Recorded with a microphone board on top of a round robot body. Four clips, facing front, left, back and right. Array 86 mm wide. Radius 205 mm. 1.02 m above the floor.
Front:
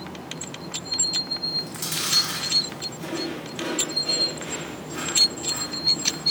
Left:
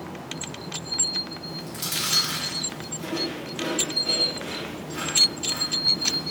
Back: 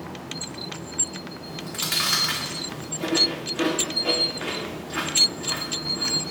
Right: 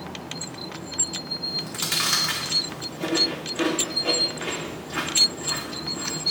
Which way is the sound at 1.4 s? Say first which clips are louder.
Right 2 dB, back 1 dB; 130° right.